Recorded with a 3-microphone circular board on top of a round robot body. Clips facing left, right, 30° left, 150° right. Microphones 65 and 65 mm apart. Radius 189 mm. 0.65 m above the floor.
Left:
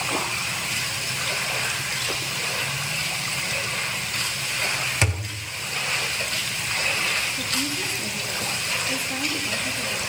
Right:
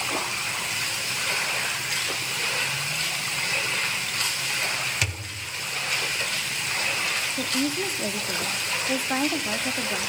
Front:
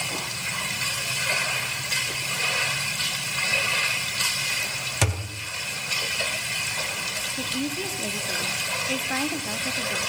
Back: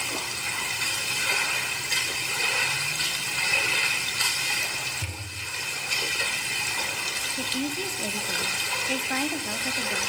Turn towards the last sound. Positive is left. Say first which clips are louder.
# right 2 dB, front 1 dB
turn(degrees=-60)